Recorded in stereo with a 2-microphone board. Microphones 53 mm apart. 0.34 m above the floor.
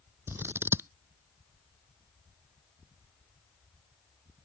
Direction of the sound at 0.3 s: 50° right (ahead or behind).